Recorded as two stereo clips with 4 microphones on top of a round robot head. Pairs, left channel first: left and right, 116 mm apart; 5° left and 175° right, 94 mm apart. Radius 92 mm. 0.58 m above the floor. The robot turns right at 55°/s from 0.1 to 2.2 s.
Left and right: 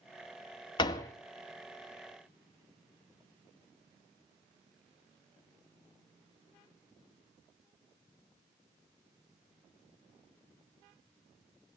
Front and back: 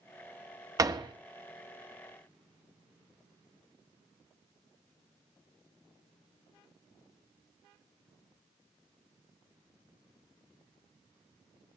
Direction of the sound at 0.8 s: 135° left.